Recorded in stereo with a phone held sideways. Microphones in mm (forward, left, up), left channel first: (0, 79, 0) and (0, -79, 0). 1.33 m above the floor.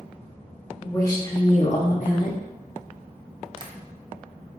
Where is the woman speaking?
20° left (ahead or behind), 1.3 m; by 2.4 s 70° left (ahead or behind), 1.1 m.